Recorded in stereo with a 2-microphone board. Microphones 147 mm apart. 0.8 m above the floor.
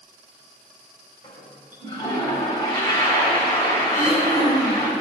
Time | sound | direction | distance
1.2 | a toilet flushing | 25° left (ahead or behind) | 3.5 m
3.9 | throat clearing | 20° left (ahead or behind) | 4 m